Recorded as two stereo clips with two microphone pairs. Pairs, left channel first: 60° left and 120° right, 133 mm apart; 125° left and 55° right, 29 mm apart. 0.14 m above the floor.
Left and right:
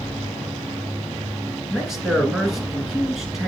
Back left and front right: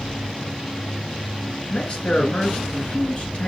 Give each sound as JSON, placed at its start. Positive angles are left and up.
{"t": 1.7, "sound": "a man speaking", "azimuth_deg": 155, "distance_m": 1.4}